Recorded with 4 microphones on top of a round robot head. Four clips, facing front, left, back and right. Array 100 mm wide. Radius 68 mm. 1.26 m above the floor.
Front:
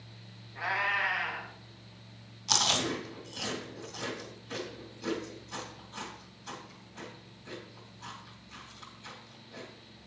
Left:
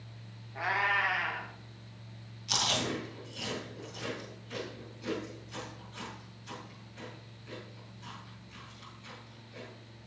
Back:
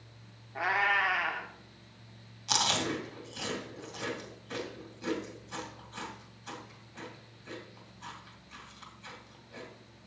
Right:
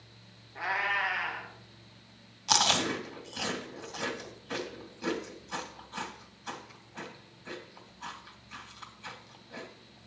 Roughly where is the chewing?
Right.